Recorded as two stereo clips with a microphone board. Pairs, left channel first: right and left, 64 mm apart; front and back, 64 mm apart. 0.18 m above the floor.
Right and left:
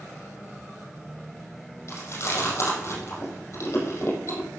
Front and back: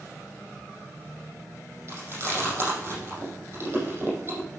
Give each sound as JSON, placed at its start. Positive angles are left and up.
{"t": 1.9, "sound": "chewing", "azimuth_deg": -130, "distance_m": 6.0}